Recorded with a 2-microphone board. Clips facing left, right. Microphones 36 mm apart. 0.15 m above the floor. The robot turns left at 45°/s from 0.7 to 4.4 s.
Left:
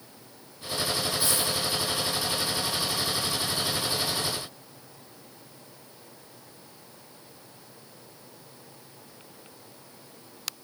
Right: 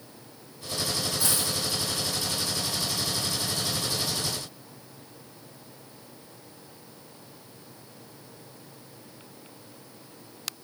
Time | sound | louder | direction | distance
1.2 | a dropped coin | left 1 dB | 75° right (ahead or behind) | 1.7 m